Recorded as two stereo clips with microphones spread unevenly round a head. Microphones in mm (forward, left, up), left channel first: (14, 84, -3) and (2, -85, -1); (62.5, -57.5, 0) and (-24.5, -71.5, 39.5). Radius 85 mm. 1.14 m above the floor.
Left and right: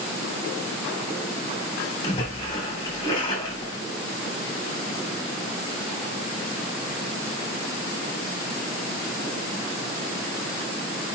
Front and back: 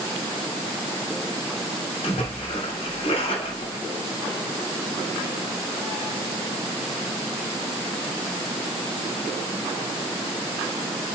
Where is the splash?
20° left, 3.5 m.